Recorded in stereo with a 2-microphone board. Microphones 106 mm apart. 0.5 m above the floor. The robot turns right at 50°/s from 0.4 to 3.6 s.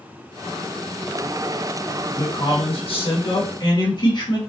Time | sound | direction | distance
2.1 | a man speaking | 50° left | 2 m